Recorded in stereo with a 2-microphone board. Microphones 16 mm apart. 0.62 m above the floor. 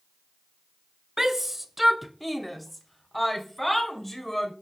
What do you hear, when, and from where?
1.2 s a shout: 25° right (ahead or behind), 0.6 m; by 4.5 s 10° left (ahead or behind), 2.5 m